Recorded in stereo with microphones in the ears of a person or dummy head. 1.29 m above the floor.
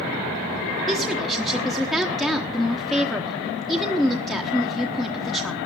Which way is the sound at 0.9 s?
Centre (ahead or behind).